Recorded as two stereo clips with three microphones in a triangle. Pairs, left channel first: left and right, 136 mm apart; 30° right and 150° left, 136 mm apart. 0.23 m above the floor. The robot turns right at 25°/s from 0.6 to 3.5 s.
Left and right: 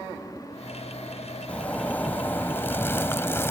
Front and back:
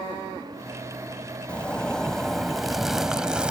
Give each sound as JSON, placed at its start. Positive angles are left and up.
{"t": 1.5, "sound": "a zipper", "azimuth_deg": 35}